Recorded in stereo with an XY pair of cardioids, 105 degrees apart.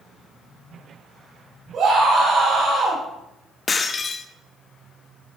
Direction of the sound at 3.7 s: 35° left.